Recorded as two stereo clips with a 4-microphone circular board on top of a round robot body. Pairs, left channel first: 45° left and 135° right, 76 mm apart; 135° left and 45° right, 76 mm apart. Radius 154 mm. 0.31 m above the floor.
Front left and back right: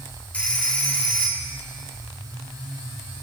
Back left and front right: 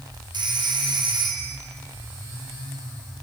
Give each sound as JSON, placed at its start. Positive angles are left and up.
{"t": 0.3, "sound": "a phone ringing", "azimuth_deg": -30, "distance_m": 2.0}